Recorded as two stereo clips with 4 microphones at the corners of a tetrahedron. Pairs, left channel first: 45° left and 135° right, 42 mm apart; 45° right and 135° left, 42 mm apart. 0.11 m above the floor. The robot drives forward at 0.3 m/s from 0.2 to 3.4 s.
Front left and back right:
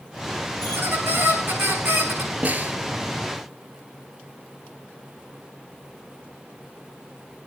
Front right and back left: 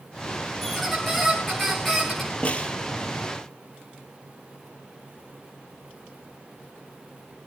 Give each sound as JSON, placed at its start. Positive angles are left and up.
{"t": 0.6, "sound": "a squeak", "azimuth_deg": -140, "distance_m": 5.5}
{"t": 2.4, "sound": "a snare drum", "azimuth_deg": -100, "distance_m": 1.3}